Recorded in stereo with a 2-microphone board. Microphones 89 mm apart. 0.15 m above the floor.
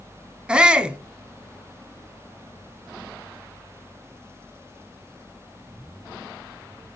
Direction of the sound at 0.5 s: 10° right (ahead or behind).